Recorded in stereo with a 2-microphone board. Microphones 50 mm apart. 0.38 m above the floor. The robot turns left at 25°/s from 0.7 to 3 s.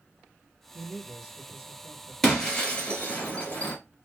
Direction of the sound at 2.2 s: 10° left (ahead or behind).